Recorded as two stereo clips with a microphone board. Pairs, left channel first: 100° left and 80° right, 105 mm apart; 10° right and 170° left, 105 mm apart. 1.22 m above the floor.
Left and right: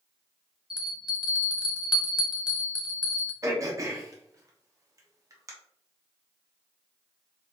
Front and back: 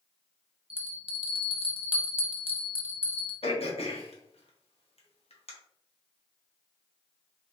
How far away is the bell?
About 1.0 m.